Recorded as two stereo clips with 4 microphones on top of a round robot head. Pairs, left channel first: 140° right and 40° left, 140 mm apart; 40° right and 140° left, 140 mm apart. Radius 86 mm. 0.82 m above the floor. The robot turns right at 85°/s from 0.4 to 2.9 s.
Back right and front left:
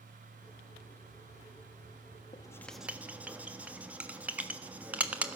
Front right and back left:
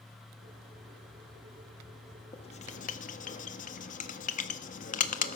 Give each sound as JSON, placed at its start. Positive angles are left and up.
{"t": 2.3, "sound": "writing", "azimuth_deg": -90, "distance_m": 1.4}